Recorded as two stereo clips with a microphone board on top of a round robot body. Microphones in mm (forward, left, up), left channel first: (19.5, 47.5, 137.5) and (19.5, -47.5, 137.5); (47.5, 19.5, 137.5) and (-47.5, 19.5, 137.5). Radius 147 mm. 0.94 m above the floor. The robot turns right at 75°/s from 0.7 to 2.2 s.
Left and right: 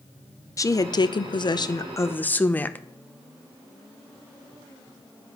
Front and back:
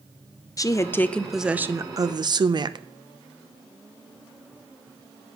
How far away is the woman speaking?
About 0.7 m.